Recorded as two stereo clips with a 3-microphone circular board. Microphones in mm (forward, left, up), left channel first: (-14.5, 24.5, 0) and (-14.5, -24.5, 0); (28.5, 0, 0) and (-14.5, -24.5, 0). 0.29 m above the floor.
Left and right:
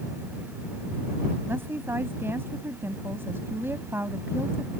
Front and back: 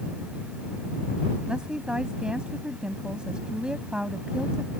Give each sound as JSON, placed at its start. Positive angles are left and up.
{"t": 1.5, "sound": "a woman speaking", "azimuth_deg": -80}